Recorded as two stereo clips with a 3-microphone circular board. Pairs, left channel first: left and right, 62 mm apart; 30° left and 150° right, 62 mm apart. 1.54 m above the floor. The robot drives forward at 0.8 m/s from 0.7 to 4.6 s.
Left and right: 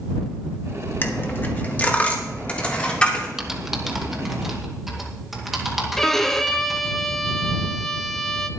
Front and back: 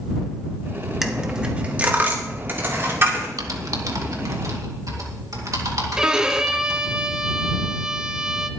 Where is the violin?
155° left, 0.7 m.